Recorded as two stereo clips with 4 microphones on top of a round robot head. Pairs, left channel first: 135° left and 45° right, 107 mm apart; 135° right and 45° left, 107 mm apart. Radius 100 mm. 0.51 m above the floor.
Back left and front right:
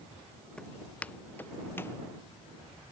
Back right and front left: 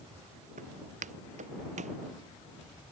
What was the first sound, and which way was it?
Footsteps, 50° left.